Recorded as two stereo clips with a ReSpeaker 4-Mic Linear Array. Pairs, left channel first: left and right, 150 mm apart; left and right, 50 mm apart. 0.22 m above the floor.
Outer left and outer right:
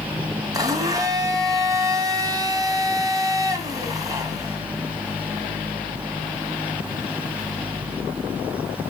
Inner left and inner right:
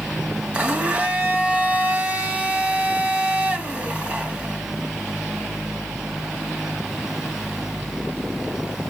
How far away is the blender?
About 1.4 m.